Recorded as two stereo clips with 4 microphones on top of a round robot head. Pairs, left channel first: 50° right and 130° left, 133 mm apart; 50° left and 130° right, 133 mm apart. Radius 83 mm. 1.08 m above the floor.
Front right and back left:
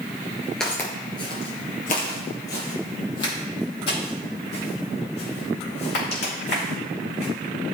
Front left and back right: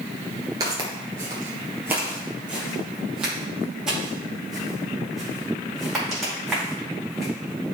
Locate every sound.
0.6 s footsteps: 130° right, 1.1 m; by 7.3 s 40° right, 5 m